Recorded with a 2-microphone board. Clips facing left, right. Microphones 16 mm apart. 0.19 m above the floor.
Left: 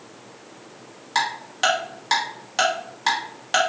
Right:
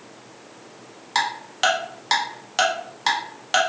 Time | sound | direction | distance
1.1 | ticking | 10° right (ahead or behind) | 1.0 m